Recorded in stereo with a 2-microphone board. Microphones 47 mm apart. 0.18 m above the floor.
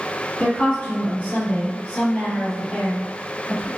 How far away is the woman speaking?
About 1.9 m.